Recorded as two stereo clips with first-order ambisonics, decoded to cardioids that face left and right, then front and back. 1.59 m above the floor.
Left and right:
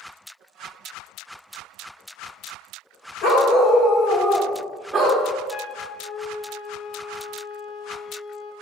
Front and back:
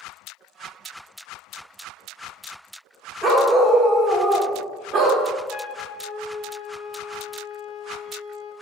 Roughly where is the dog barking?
Left.